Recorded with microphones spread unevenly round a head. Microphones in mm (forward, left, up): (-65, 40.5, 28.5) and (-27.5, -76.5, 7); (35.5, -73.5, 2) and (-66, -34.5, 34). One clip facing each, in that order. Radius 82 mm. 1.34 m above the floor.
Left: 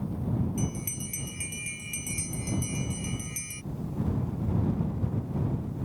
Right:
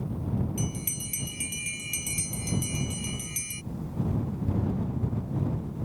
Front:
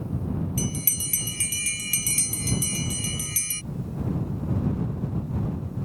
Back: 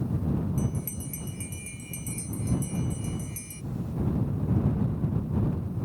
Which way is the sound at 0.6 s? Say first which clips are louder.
Left 1 dB, front 1 dB; 5° left.